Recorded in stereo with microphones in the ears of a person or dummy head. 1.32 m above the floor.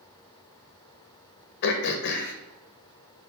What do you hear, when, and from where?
1.6 s throat clearing: 60° left (ahead or behind), 1.0 m